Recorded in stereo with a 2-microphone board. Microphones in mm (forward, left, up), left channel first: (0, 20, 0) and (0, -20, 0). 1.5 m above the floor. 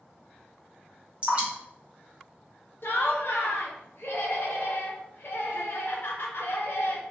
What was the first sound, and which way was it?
Dripping, 30° right (ahead or behind).